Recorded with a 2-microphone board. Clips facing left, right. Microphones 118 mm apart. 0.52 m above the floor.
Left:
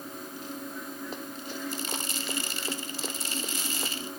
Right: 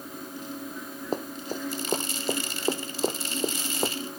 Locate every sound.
1.1 s running footsteps: 40° right (ahead or behind); by 3.9 s 35° right (ahead or behind)